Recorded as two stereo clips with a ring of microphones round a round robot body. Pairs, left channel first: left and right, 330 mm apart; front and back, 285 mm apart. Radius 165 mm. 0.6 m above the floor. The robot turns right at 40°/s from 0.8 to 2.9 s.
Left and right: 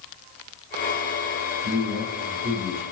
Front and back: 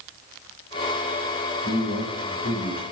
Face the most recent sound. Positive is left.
turn(degrees=0)